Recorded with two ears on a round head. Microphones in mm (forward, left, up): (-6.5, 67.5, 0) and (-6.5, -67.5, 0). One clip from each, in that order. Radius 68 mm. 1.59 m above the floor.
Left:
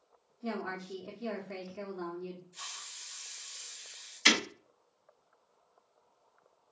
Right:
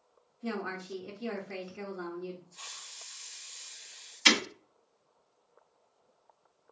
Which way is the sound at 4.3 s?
10° left (ahead or behind).